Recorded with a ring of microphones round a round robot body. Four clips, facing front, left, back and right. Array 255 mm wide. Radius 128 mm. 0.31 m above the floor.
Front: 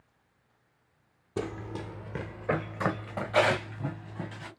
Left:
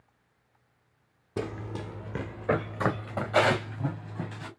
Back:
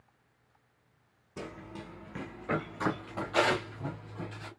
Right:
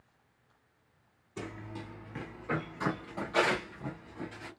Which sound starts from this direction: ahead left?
Running footsteps, at 1.4 s.